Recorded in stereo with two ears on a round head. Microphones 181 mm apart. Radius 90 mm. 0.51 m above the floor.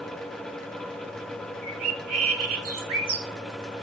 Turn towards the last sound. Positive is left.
turn(degrees=-80)